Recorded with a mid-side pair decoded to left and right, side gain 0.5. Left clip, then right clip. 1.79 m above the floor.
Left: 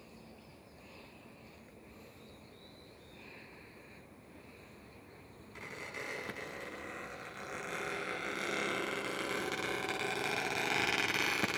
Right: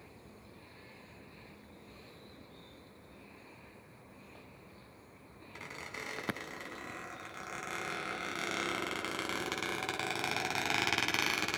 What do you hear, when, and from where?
5.5 s a squeak: 30° right, 6 m